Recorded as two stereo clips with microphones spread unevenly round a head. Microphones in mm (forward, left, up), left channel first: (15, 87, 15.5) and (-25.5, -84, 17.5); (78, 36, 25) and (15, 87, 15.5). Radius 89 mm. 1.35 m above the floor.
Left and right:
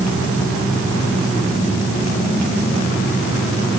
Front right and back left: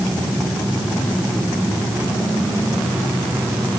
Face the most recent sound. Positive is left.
No sound to turn to.